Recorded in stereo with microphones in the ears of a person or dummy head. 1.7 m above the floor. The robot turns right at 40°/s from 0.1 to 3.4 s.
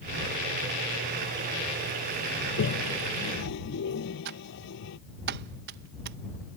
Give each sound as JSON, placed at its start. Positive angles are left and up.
{"t": 2.4, "sound": "a toilet flushing", "side_deg": 70}
{"t": 4.2, "sound": "typing on a keyboard", "side_deg": -65}